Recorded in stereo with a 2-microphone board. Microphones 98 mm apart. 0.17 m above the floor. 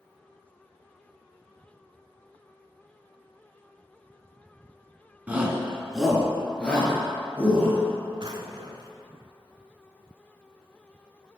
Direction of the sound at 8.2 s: 55° right (ahead or behind).